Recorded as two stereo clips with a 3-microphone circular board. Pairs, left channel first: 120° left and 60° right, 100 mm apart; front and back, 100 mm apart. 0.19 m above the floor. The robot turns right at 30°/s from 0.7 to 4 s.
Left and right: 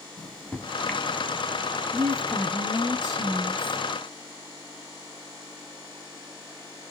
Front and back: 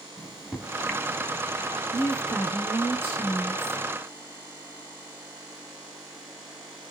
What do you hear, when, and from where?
0.2 s a microwave: 85° left, 0.8 m; by 1.8 s 120° left, 0.8 m
1.9 s a woman speaking: 85° left, 3 m; by 3.8 s 145° left, 3 m